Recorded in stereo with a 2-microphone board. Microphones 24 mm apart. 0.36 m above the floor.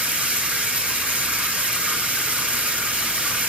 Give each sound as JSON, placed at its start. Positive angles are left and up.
{"t": 0.0, "sound": "running water", "side_deg": -70, "distance_m": 3.0}